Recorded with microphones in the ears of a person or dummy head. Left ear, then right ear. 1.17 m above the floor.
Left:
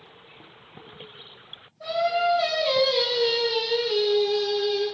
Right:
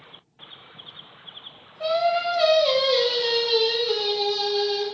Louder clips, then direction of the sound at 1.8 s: Right 2 dB; 50° right (ahead or behind).